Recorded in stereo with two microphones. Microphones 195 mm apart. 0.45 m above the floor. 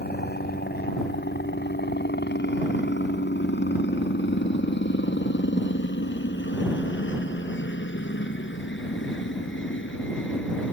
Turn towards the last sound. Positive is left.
turn(degrees=75)  # may be behind; listen again after turning